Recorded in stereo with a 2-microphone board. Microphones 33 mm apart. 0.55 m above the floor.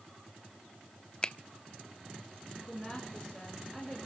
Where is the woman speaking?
5° left (ahead or behind), 5.5 m.